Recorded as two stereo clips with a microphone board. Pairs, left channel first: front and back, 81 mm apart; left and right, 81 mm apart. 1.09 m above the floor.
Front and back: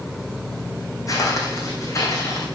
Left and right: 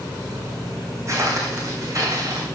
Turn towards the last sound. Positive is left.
turn(degrees=-50)